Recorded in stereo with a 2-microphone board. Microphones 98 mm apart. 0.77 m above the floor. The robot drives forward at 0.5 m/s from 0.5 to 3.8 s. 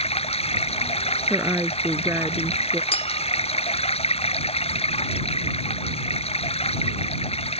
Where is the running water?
85° left.